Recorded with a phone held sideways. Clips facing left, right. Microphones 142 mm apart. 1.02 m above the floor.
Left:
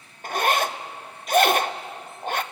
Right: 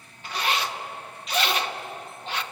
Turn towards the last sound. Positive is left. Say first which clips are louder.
# left 5 dB
turn(degrees=45)  # may be behind; listen again after turning